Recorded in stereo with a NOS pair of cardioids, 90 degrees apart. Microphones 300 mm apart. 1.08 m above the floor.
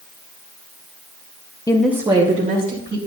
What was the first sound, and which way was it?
A woman speaking, 15° left.